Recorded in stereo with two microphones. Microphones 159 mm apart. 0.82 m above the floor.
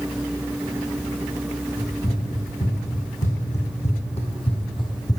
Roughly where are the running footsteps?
Left.